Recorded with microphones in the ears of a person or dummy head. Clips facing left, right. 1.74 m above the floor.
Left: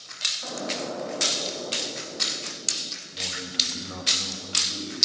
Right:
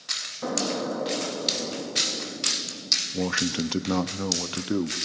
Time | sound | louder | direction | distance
0.4 | an explosion | right 4 dB | 60° right (ahead or behind) | 2 m
3.1 | a man speaking | right 13 dB | 80° right | 0.9 m